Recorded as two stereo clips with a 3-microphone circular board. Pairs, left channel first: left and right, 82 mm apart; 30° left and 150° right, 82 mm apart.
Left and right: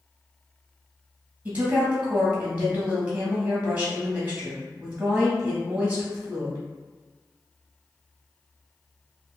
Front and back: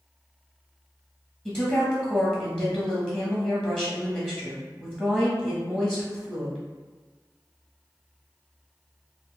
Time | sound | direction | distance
1.4 | a woman speaking | 45° right | 1.1 m